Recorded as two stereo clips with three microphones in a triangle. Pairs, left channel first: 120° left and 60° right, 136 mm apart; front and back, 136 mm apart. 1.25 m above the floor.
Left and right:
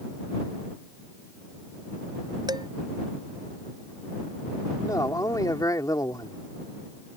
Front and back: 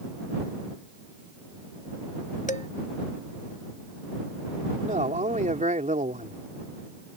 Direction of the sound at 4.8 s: Straight behind.